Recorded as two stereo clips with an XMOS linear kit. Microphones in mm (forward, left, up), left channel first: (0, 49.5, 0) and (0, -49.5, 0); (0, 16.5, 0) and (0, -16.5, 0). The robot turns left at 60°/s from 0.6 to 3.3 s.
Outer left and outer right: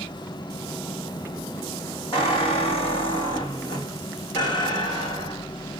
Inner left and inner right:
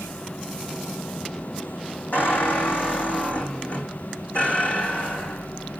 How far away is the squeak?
About 4.5 m.